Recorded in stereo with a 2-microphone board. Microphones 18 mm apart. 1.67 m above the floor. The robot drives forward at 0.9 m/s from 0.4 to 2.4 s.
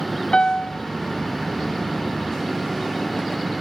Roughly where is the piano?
Left.